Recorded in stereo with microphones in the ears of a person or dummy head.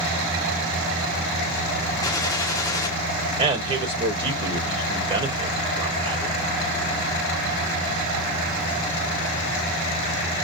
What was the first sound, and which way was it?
A gunshot, 15° left (ahead or behind).